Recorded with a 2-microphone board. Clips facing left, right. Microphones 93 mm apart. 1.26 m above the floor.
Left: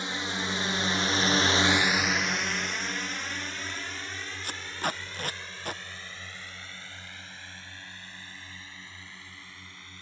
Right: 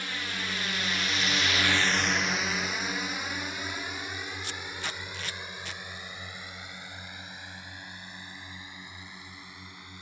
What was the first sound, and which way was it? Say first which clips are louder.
A drone: left 3 dB; 25° left (ahead or behind).